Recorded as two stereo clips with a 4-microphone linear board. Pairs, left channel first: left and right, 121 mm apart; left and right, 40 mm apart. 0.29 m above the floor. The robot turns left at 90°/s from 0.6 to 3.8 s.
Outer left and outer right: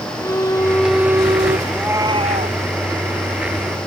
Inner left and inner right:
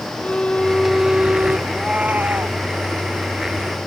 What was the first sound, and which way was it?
A violin, 25° left.